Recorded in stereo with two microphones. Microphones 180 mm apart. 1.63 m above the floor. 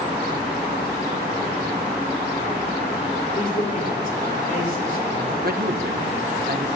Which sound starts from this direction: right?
A man speaking, at 5.4 s.